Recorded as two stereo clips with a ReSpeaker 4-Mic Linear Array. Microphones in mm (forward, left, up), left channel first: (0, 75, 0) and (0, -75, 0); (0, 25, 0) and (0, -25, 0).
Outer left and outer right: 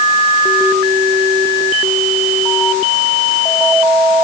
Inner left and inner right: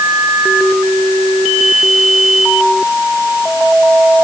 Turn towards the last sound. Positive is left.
No sound to turn to.